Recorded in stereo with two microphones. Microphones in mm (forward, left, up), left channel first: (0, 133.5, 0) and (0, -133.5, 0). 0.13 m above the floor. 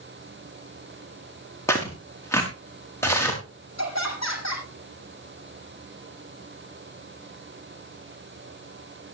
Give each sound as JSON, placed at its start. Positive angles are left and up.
{"t": 1.7, "sound": "tearing paper", "side_deg": 10, "distance_m": 5.5}
{"t": 3.8, "sound": "laughter", "side_deg": 75, "distance_m": 6.5}